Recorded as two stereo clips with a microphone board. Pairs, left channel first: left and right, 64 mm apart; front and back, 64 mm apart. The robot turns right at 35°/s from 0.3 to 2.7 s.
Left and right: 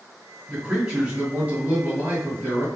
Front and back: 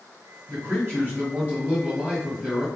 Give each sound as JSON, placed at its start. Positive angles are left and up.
{"t": 0.5, "sound": "a man speaking", "azimuth_deg": -175, "distance_m": 1.5}